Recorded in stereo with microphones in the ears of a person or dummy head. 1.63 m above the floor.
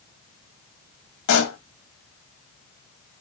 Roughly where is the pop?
Left.